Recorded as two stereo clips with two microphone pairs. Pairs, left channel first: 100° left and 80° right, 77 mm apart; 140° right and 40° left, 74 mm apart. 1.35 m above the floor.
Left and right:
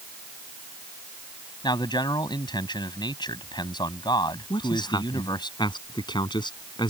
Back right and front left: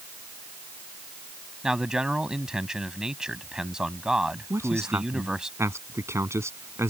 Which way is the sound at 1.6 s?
120° left.